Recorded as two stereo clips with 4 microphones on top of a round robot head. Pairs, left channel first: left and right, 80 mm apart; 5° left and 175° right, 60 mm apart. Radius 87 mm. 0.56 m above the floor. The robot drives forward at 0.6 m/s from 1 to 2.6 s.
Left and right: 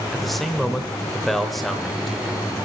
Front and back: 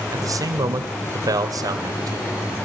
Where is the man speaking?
Straight behind, 2 m.